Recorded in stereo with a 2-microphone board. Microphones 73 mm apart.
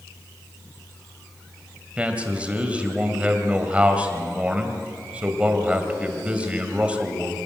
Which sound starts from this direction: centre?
A man speaking, at 2.0 s.